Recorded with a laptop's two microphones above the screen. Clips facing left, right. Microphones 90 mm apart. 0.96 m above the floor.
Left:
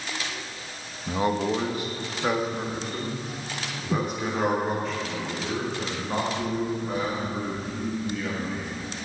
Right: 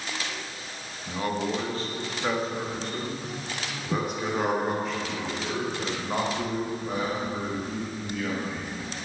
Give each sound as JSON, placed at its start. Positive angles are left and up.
{"t": 1.1, "sound": "a man speaking", "side_deg": 30, "distance_m": 1.3}